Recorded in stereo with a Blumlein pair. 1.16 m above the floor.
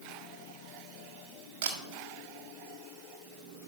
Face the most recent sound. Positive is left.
turn(degrees=-45)